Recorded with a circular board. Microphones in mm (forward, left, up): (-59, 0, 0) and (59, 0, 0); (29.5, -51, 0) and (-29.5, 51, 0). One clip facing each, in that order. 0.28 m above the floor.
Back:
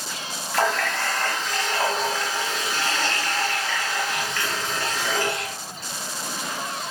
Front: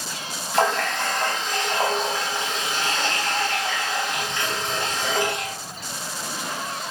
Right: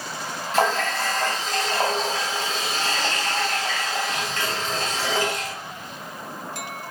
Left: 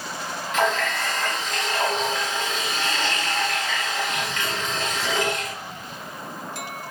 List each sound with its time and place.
0.5 s a running tap: 55° right, 0.8 m